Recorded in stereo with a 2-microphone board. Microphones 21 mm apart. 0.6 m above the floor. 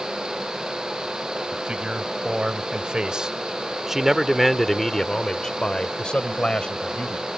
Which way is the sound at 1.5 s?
60° right (ahead or behind).